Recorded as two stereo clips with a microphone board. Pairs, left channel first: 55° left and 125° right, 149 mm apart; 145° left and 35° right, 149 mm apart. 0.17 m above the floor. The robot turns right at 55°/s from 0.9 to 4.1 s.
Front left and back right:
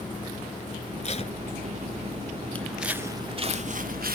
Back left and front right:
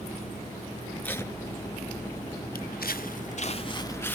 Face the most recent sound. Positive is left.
turn(degrees=-135)